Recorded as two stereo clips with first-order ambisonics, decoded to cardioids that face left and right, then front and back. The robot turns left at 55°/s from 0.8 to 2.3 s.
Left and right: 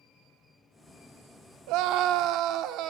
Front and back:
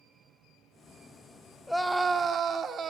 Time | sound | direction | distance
1.7 | a scream | 85° right | 1.8 m